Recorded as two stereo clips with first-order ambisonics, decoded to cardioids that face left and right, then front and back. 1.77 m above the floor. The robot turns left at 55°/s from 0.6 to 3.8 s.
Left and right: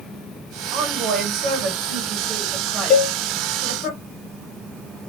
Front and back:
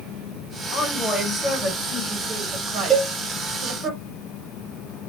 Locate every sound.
0.7 s a woman speaking: 55° right, 2 m; by 3.9 s 135° left, 2 m
2.9 s a cowbell: 125° left, 1.0 m; by 3.1 s 110° left, 1.0 m